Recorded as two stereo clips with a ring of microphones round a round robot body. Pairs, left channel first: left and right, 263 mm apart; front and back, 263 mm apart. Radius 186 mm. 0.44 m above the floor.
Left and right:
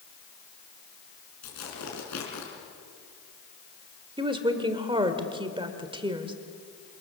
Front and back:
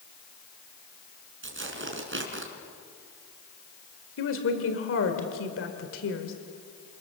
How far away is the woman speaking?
About 1.9 m.